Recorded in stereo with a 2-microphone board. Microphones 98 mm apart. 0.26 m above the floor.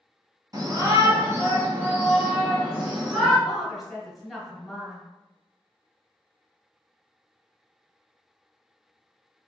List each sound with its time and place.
0.5 s a shout: 40° right (ahead or behind), 1.6 m; by 3.4 s 5° right (ahead or behind), 2.5 m
3.5 s a woman speaking: centre (ahead or behind), 1.2 m